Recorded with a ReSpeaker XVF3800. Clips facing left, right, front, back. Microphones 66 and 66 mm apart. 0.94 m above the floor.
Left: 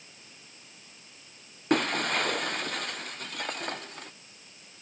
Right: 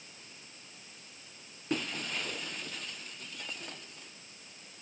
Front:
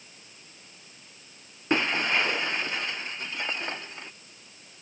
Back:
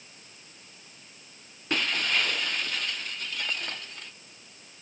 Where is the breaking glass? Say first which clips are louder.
Left 9 dB, front 3 dB; 65° left.